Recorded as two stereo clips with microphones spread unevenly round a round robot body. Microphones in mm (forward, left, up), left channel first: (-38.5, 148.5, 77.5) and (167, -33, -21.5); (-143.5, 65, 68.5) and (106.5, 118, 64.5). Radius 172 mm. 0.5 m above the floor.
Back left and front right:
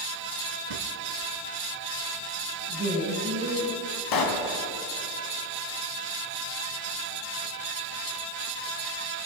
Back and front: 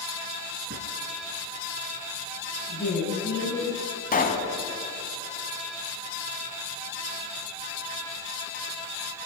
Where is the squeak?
No squeak in this recording.